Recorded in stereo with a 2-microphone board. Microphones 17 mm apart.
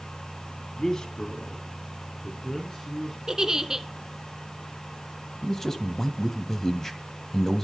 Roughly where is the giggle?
Right.